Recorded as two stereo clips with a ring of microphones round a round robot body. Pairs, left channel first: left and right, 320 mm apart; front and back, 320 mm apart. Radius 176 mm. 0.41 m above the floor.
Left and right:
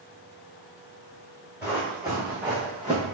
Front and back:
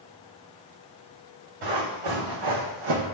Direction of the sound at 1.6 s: 175° right.